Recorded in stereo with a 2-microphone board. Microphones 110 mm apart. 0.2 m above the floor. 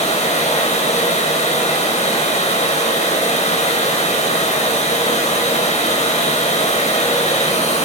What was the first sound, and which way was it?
Running water, 75° left (ahead or behind).